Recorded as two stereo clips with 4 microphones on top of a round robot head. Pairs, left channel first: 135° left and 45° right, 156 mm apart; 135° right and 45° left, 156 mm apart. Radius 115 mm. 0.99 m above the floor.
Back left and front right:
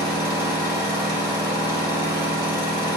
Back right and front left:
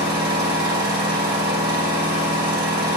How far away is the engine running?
About 2.5 m.